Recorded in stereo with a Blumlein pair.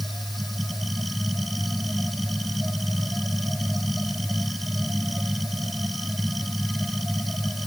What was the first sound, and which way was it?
A machine running, 5° right.